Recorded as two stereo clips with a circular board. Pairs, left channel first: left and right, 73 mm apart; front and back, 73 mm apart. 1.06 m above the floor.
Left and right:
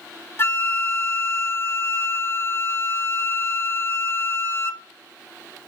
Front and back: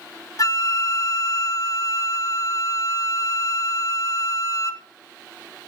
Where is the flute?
30° left, 1.0 m.